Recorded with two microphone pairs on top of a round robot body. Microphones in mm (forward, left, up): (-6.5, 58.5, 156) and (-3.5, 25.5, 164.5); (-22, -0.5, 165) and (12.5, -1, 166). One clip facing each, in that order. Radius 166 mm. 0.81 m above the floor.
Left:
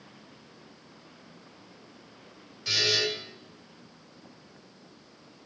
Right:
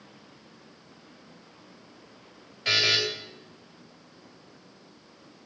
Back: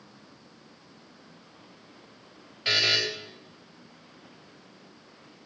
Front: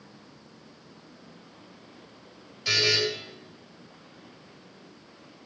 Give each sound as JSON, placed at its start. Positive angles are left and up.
{"t": 2.6, "sound": "a buzzer", "azimuth_deg": -130, "distance_m": 3.5}